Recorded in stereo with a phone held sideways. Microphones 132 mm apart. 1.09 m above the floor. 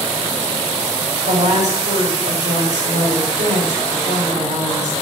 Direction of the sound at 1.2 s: 80° right.